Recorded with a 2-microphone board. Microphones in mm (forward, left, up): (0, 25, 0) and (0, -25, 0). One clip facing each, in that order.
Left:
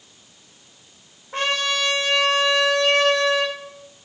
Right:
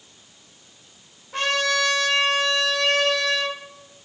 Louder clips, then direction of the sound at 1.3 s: Right 1 dB; 35° left (ahead or behind).